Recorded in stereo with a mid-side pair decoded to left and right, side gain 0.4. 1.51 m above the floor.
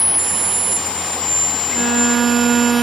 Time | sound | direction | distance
1.7 | a violin | 55° right | 0.5 m